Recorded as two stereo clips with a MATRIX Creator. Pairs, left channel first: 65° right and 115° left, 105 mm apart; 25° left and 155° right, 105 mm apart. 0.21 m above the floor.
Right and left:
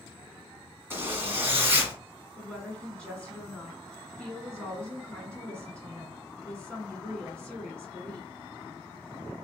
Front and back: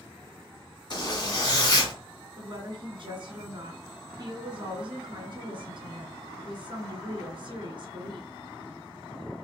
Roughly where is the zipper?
Ahead left.